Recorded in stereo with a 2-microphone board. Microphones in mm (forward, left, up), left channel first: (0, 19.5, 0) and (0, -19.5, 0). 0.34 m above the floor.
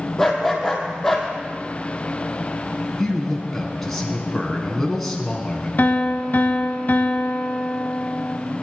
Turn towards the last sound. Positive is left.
turn(degrees=50)  # may be behind; listen again after turning